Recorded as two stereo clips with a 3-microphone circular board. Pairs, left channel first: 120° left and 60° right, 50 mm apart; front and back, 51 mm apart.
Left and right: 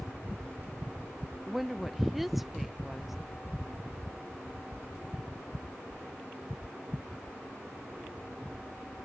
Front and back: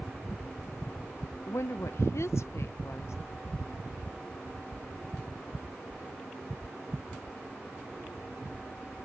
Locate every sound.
1.5 s a woman speaking: 30° left